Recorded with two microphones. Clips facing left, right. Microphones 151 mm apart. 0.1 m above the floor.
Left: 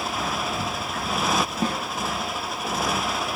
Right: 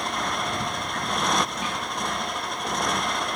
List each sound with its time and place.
0.0 s a motorcycle: 5° left (ahead or behind)
1.6 s a snare drum: 40° left (ahead or behind)